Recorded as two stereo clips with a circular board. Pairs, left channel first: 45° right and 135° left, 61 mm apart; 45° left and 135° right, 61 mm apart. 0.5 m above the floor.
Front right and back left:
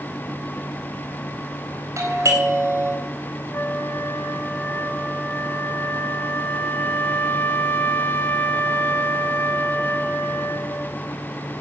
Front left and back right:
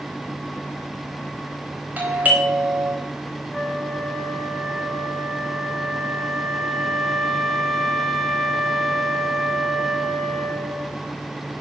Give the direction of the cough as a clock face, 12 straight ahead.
I don't hear a cough.